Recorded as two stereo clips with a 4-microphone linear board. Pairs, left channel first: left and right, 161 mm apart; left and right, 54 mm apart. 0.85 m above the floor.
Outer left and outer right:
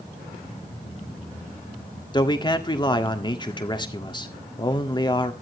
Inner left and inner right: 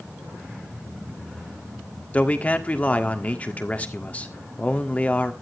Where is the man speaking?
30° left (ahead or behind), 1.6 m.